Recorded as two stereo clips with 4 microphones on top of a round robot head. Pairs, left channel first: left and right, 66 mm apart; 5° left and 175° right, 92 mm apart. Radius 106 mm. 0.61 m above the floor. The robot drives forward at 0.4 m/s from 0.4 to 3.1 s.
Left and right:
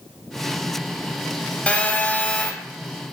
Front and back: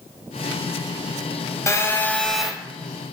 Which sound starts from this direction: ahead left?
A phone buzzing, at 1.7 s.